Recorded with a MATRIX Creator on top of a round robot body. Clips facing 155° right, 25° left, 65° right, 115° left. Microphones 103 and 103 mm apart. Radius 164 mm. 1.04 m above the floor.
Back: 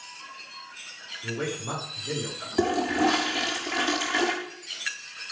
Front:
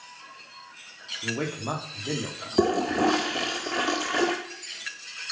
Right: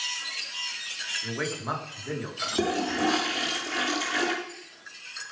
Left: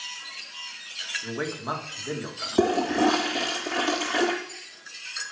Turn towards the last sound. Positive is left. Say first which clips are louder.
# front 1 dB, left 5 dB
turn(degrees=70)